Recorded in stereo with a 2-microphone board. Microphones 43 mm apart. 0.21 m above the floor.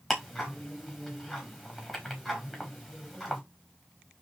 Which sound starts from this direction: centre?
Ticking, at 0.1 s.